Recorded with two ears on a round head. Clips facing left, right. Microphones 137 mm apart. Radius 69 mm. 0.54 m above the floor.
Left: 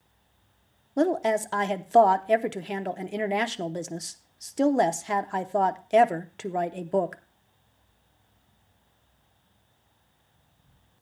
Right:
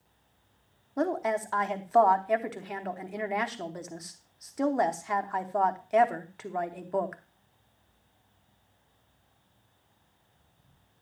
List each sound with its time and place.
1.0 s a woman speaking: 30° left (ahead or behind), 0.8 m